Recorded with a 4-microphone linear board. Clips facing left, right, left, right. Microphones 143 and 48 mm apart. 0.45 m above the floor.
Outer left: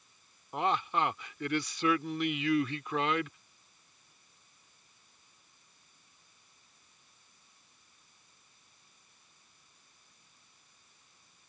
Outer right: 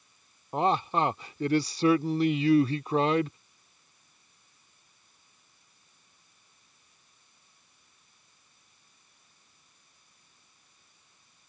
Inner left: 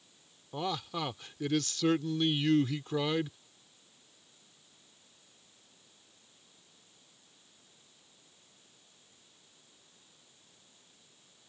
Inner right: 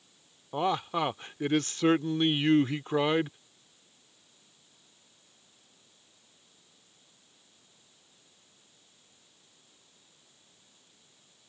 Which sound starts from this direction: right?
A man speaking, at 0.5 s.